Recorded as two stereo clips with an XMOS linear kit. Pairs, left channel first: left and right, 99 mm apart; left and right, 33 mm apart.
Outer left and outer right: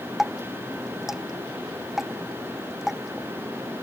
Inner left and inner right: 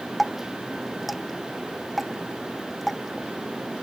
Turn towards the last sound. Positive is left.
turn(degrees=-5)  # may be behind; listen again after turning